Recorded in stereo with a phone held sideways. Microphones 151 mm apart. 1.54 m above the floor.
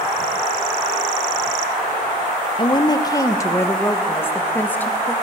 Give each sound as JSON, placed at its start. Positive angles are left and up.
{"t": 2.6, "sound": "a woman speaking", "side_deg": 35, "distance_m": 1.0}